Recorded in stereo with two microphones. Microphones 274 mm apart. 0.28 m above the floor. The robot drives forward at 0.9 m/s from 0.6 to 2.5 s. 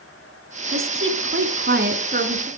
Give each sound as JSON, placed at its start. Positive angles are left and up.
{"t": 0.7, "sound": "a woman speaking", "side_deg": -50, "distance_m": 2.0}